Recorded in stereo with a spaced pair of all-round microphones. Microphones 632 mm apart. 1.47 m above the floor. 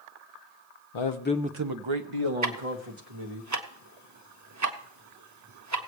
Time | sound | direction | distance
0.9 | a man speaking | 55° left (ahead or behind) | 0.7 m
2.4 | ticking | 30° right (ahead or behind) | 0.7 m